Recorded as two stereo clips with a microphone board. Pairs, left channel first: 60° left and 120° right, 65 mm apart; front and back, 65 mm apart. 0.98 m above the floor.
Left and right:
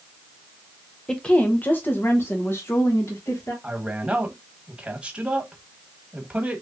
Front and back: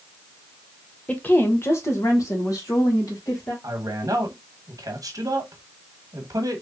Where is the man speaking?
170° left, 1.2 m.